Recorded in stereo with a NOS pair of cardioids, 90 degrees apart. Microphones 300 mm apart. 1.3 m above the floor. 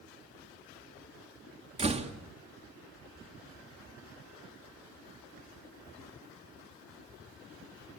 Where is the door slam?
20° right, 2 m.